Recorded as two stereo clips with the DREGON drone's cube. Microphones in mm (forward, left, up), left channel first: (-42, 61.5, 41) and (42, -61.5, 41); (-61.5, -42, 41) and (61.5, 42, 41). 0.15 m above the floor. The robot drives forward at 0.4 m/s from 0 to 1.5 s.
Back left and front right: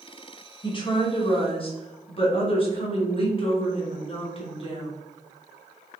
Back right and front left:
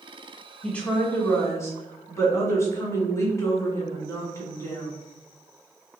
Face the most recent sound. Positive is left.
turn(degrees=150)